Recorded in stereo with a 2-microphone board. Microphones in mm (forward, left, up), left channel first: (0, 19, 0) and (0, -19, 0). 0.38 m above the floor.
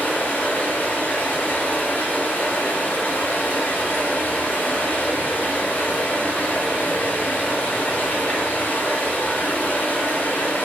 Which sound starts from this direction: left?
Running water, at 0.0 s.